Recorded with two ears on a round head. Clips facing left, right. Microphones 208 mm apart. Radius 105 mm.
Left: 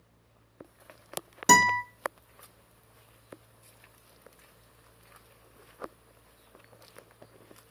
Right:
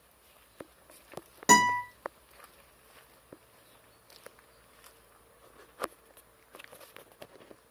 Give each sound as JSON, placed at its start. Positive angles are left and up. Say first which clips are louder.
{"t": 1.5, "sound": "a guitar", "louder": "even", "side_deg": 10, "distance_m": 0.8}